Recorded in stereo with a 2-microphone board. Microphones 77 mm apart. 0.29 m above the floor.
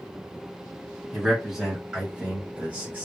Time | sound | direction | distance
1.1 | a man speaking | 5° right (ahead or behind) | 1.6 m